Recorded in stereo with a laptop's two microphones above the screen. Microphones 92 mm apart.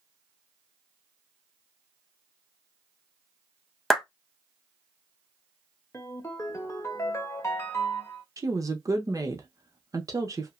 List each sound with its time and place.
3.9 s a clap: centre (ahead or behind), 0.6 m
5.9 s a ringtone: 30° left (ahead or behind), 0.6 m
8.4 s a woman speaking: 40° right (ahead or behind), 0.8 m